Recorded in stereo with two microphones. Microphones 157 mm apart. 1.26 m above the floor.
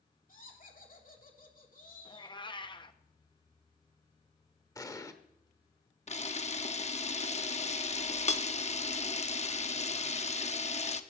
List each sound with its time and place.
0.3 s laughter: 60° left (ahead or behind), 3 m
2.0 s a cat meowing: 30° left (ahead or behind), 0.7 m
4.8 s an explosion: 20° left (ahead or behind), 1.1 m
6.1 s a camera shutter: 45° left (ahead or behind), 0.8 m